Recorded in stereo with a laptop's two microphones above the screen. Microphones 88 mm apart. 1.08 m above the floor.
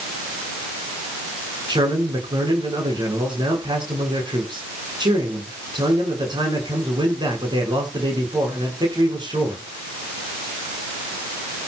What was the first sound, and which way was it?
A man speaking, 60° right (ahead or behind).